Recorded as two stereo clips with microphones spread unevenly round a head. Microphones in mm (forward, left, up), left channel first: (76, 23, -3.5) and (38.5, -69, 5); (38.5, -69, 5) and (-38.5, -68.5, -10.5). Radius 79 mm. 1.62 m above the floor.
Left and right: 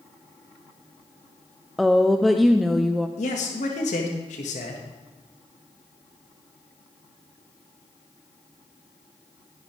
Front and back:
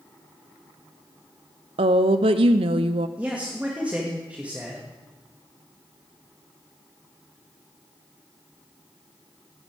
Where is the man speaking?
95° left, 1.8 m.